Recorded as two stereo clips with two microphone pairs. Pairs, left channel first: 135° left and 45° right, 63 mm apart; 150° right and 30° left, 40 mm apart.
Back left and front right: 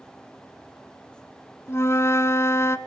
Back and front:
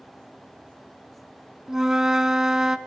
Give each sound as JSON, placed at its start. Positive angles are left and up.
{"t": 1.7, "sound": "a flute", "azimuth_deg": 100, "distance_m": 0.9}